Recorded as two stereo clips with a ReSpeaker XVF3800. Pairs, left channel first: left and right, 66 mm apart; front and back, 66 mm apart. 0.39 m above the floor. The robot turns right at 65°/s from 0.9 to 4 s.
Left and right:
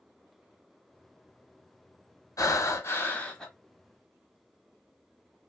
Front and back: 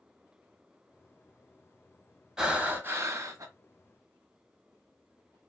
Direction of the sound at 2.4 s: 100° left.